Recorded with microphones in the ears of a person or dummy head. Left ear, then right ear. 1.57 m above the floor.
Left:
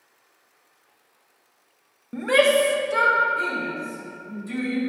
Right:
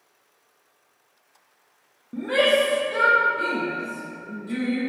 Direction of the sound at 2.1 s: 60° left (ahead or behind).